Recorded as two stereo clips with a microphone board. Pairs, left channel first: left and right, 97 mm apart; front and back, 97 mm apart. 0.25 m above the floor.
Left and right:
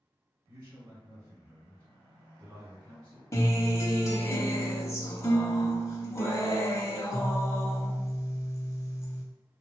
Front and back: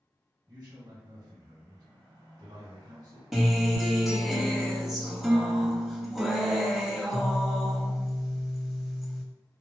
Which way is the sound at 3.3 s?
95° left.